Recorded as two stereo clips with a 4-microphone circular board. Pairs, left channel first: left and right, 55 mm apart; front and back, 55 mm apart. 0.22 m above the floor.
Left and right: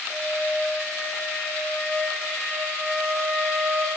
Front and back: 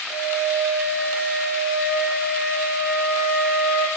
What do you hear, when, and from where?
0.1 s a flute: 10° left, 2 m